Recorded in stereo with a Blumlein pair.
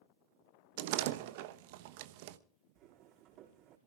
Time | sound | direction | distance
0.8 | a door slam | 50° right | 1.0 m
2.8 | footsteps | 35° right | 5 m